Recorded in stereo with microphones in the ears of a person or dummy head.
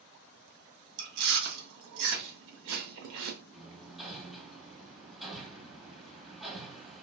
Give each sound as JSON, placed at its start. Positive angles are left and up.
{"t": 1.0, "sound": "chewing", "side_deg": -65, "distance_m": 0.8}
{"t": 3.5, "sound": "hammering", "side_deg": 0, "distance_m": 0.7}